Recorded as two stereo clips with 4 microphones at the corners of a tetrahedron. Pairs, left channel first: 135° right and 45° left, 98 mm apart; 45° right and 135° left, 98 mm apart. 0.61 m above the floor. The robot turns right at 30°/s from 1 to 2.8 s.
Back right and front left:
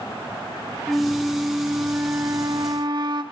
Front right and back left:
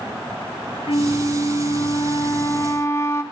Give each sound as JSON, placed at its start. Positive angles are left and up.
{"t": 0.9, "sound": "a flute", "azimuth_deg": -40, "distance_m": 0.8}